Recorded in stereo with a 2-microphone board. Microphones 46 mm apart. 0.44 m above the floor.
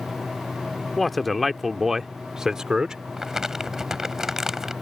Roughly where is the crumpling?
Centre.